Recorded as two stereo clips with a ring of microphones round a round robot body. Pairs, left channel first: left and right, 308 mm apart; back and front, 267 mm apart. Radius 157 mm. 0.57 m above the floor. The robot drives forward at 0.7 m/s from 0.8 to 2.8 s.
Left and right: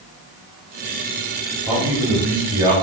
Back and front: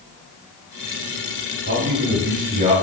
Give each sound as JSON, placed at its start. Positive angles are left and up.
{"t": 1.7, "sound": "a man speaking", "azimuth_deg": -15, "distance_m": 1.7}